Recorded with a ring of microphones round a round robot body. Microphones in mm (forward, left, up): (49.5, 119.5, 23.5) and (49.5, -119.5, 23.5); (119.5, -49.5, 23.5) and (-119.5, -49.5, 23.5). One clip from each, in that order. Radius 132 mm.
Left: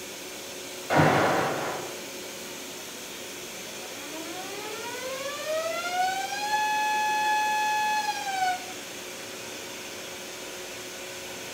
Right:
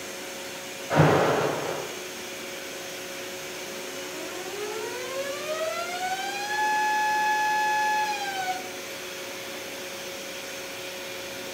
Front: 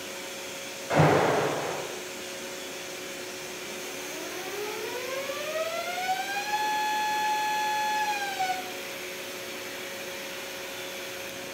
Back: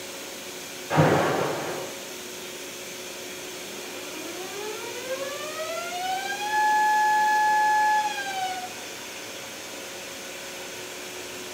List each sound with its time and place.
0.9 s an alarm: 65° left, 4.5 m